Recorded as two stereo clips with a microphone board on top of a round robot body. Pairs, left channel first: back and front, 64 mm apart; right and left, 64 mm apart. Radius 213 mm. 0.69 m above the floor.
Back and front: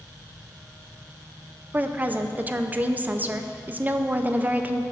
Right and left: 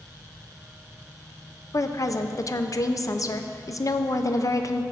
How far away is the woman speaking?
About 0.7 m.